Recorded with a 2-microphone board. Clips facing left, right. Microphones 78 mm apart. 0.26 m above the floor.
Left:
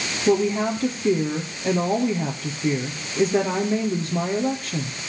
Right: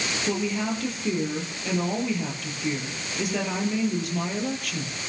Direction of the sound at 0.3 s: 30° left (ahead or behind).